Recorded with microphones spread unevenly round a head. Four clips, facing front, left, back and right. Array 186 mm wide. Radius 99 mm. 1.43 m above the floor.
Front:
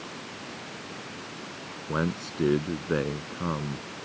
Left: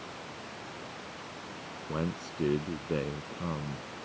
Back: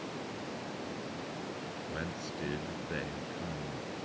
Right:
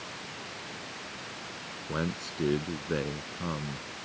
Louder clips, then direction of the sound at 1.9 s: Right 1 dB, front 13 dB; 5° right.